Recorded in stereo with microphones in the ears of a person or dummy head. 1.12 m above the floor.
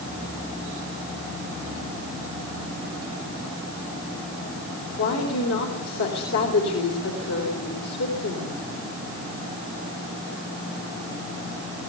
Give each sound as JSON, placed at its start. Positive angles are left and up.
{"t": 5.0, "sound": "a woman speaking", "side_deg": 75, "distance_m": 4.0}